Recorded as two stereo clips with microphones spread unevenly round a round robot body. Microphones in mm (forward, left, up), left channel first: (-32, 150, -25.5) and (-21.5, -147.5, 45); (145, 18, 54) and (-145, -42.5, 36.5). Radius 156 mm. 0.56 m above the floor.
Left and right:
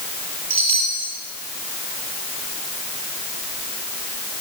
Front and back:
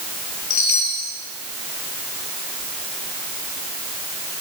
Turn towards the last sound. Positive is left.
turn(degrees=-15)